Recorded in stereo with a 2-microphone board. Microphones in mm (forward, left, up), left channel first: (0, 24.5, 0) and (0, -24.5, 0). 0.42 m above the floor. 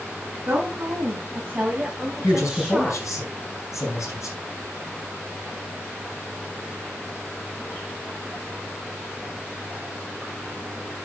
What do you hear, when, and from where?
0.5 s a woman speaking: 45° right (ahead or behind), 3 m; by 3.0 s 5° right (ahead or behind), 1.7 m
2.2 s a man speaking: 75° left (ahead or behind), 4.5 m